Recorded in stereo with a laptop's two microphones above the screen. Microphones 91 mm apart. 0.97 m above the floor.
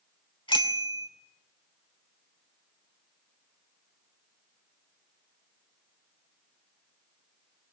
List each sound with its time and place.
0.5 s a bicycle bell: 70° left (ahead or behind), 2 m